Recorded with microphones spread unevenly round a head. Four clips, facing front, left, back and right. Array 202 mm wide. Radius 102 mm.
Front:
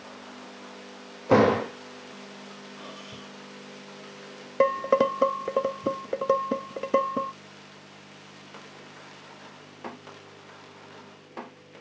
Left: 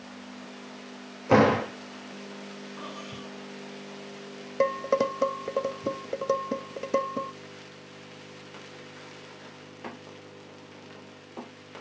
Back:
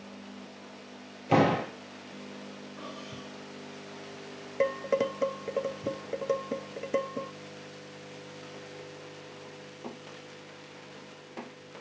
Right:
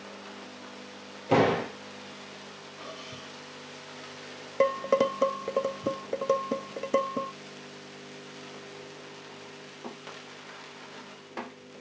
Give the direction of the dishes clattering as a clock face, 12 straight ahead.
12 o'clock.